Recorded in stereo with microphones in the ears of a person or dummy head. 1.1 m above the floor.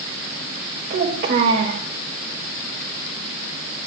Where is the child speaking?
50° right (ahead or behind), 3 m.